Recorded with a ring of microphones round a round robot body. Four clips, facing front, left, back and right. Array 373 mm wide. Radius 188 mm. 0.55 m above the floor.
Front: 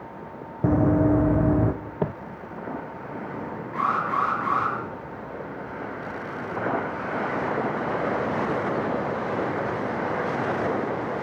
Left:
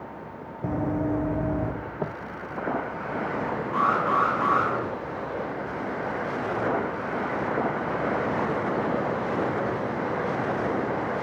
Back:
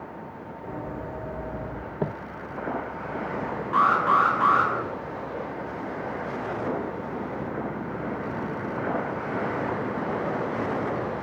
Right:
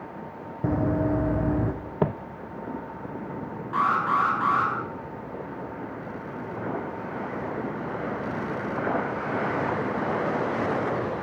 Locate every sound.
0.6 s running footsteps: 15° right, 2 m; by 1.7 s 10° right, 2.5 m
2.0 s footsteps: 70° right, 0.6 m
3.7 s an alarm: 175° right, 10 m